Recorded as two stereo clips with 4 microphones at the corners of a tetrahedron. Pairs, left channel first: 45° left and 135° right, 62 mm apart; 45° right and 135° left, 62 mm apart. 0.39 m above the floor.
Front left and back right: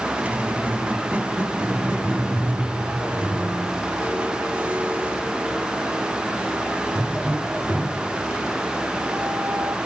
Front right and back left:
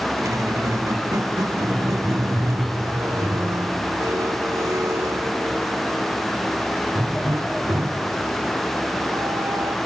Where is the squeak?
160° left, 0.8 m.